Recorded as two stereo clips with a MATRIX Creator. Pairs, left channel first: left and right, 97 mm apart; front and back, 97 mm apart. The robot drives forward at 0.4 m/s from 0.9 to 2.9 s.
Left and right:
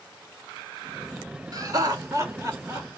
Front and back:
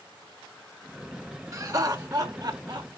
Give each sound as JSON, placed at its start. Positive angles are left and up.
{"t": 1.5, "sound": "laughter", "azimuth_deg": -130, "distance_m": 1.3}